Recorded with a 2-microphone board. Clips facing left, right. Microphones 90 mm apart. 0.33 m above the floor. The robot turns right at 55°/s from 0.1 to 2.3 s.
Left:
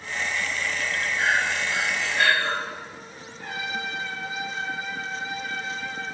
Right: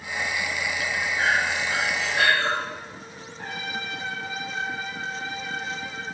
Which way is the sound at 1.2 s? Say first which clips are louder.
Even; 155° right.